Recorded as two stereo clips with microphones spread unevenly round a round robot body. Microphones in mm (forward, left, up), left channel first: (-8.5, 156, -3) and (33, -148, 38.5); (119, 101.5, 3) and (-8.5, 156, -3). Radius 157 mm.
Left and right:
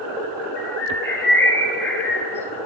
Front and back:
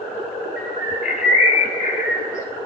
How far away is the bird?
About 0.8 m.